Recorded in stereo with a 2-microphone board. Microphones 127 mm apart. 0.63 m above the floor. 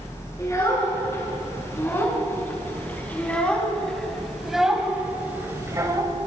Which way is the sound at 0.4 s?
25° left (ahead or behind).